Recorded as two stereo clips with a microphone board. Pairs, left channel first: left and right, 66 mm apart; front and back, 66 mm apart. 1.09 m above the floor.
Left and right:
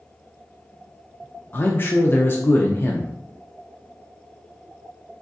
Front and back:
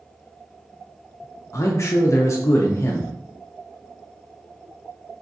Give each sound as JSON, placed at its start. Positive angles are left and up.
{"t": 1.5, "sound": "a man speaking", "azimuth_deg": 35, "distance_m": 0.5}